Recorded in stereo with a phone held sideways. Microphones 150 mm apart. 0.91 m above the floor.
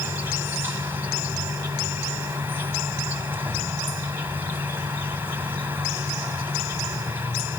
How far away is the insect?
About 1.5 m.